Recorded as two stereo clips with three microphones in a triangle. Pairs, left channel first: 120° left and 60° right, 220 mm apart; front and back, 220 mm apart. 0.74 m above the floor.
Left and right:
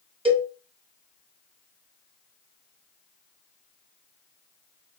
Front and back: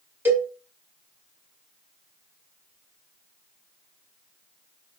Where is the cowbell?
110° right, 1.0 m.